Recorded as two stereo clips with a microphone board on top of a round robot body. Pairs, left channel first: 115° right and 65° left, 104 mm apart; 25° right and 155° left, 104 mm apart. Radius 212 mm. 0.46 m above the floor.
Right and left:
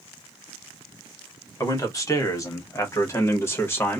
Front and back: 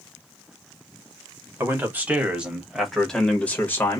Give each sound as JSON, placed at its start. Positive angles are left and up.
{"t": 1.6, "sound": "a man speaking", "azimuth_deg": -150, "distance_m": 1.7}